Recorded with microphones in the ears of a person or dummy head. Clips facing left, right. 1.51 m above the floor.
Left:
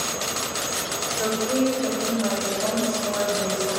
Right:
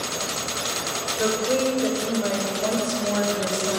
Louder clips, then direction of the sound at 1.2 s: Even; 40° right (ahead or behind).